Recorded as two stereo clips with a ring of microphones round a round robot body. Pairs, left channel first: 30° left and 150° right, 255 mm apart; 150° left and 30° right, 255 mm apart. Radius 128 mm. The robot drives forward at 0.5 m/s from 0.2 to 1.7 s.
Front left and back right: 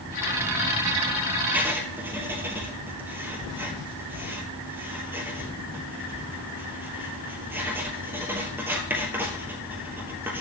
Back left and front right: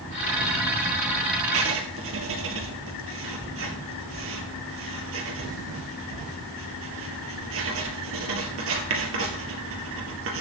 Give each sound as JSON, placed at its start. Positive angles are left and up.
{"t": 1.5, "sound": "writing", "azimuth_deg": -65, "distance_m": 2.0}